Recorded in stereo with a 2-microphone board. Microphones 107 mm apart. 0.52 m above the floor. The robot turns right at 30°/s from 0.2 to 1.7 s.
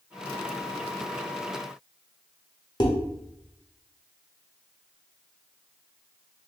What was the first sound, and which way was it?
Dishes clattering, 45° left (ahead or behind).